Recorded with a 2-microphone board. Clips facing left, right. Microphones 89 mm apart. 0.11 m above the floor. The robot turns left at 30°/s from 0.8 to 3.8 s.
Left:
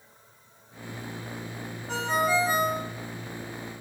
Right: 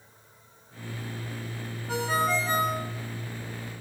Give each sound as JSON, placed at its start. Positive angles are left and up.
{"t": 1.9, "sound": "a ringtone", "side_deg": -10, "distance_m": 5.0}